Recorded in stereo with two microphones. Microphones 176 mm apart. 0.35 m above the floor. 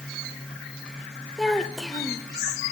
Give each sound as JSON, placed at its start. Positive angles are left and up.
{"t": 1.4, "sound": "a child speaking", "side_deg": 5, "distance_m": 0.8}